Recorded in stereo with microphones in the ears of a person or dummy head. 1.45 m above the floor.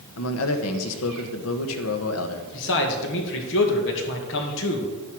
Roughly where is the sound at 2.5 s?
Left.